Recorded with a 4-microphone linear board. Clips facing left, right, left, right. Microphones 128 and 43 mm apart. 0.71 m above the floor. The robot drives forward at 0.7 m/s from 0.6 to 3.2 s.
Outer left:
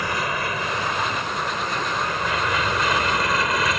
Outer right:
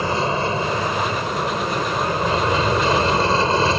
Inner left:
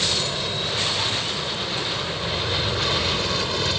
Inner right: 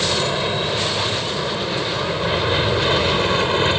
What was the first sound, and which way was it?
An aircraft, 30° right (ahead or behind).